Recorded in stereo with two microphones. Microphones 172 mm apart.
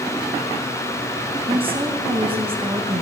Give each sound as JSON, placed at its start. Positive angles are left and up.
{"t": 1.5, "sound": "a woman speaking", "side_deg": -30, "distance_m": 2.0}